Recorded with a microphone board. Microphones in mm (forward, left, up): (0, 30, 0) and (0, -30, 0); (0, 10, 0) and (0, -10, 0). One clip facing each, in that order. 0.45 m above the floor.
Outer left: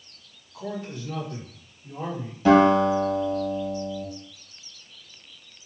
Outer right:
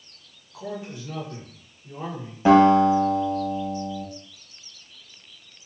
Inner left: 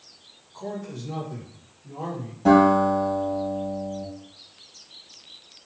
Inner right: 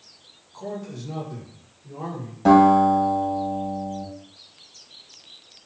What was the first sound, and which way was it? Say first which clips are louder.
A man speaking: outer left 1 dB, inner right 1 dB; 20° right (ahead or behind).